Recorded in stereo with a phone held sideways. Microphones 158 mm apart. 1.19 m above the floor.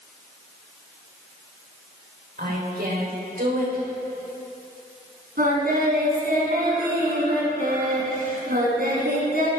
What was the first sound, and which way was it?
A woman speaking, 75° right (ahead or behind).